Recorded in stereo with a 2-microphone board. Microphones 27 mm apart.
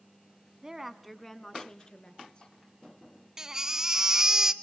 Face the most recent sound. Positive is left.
turn(degrees=-20)  # may be behind; listen again after turning